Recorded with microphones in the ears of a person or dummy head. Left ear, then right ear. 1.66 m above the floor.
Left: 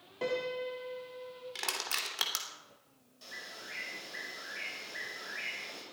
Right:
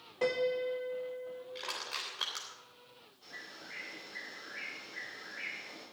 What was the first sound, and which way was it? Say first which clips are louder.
A piano: right 3 dB; 5° right (ahead or behind).